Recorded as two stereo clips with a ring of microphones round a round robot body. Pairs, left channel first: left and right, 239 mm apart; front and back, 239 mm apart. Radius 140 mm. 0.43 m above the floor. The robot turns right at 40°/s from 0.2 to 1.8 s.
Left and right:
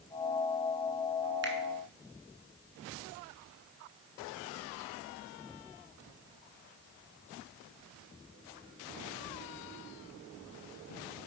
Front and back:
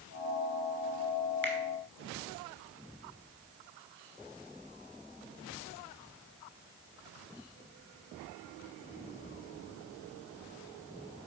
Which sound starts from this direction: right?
A finger snap, at 1.4 s.